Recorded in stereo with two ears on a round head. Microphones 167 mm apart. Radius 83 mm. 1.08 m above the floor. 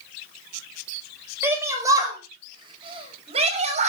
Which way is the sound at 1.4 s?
15° right (ahead or behind).